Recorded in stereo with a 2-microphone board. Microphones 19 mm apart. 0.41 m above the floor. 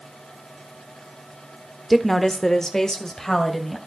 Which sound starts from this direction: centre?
A woman speaking, at 1.9 s.